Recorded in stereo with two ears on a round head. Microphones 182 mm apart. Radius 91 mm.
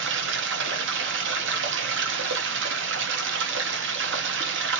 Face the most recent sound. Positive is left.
turn(degrees=-65)  # may be behind; listen again after turning